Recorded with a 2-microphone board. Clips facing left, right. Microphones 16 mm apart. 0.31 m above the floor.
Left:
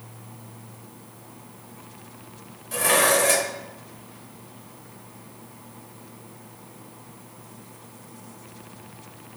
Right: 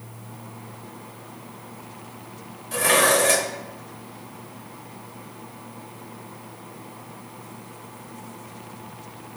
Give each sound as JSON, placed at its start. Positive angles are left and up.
{"t": 2.7, "sound": "dishes clattering", "side_deg": -5, "distance_m": 0.8}